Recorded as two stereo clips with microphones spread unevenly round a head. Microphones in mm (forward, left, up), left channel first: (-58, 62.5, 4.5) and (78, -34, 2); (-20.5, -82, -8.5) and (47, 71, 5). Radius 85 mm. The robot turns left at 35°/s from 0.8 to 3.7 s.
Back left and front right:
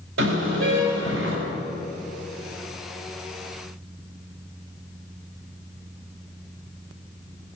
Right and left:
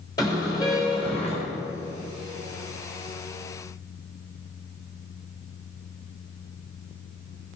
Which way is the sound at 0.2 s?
45° right.